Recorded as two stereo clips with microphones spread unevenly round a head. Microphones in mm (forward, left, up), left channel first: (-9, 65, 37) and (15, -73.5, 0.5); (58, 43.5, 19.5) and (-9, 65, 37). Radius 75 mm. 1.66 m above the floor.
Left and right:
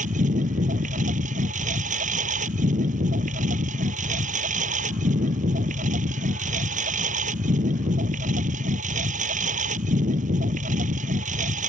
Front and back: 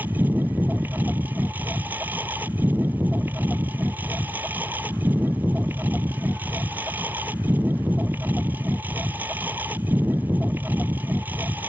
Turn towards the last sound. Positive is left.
turn(degrees=-120)